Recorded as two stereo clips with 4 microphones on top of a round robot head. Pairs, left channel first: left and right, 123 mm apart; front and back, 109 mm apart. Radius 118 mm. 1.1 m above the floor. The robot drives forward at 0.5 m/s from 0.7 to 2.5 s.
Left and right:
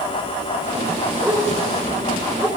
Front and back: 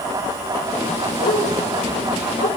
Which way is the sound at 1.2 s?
15° right.